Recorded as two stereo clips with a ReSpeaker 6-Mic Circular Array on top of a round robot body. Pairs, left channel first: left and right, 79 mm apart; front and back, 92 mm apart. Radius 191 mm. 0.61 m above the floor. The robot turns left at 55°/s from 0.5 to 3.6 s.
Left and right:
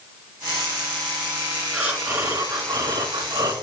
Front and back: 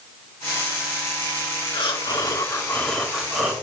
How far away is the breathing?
About 1.6 m.